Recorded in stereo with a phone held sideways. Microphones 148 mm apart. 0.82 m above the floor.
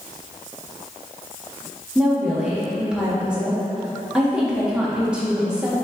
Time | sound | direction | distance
1.9 | a woman speaking | 5° right (ahead or behind) | 1.5 m